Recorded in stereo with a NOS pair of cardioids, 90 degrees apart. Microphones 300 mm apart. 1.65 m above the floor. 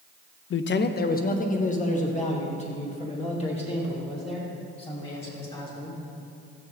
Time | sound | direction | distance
0.5 | a man speaking | 45° left | 0.6 m